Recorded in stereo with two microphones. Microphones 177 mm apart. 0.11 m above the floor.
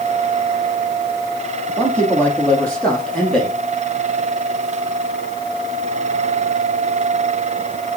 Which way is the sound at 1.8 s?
10° left (ahead or behind).